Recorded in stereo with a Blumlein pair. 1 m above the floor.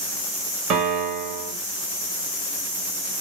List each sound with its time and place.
0.7 s a piano: 35° right, 1.2 m